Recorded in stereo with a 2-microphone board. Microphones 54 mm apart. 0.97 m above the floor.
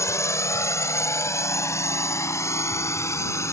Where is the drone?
70° left (ahead or behind); by 3.5 s 65° left (ahead or behind).